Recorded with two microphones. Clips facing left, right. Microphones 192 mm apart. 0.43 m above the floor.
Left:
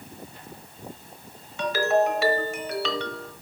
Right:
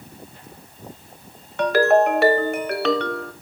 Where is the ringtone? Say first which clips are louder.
Right 6 dB; 60° right (ahead or behind), 0.9 m.